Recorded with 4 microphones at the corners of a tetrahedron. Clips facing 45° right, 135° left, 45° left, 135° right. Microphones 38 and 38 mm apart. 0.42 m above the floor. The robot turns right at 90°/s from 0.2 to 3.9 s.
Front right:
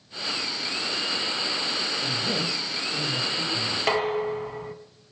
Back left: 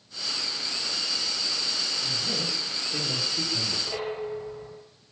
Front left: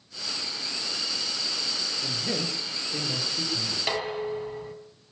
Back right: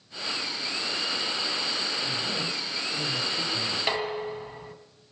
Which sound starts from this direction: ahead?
A man speaking, at 2.0 s.